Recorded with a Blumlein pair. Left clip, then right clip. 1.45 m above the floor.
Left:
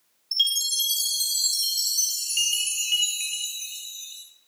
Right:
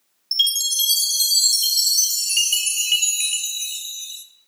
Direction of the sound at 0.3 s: 35° right.